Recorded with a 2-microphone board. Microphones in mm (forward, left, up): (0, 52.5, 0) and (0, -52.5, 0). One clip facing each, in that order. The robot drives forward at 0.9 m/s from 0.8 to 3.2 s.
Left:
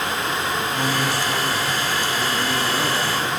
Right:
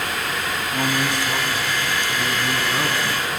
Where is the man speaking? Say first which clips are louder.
Right 3 dB; 20° right (ahead or behind), 2.5 m; by 3.3 s 10° right (ahead or behind), 4.5 m.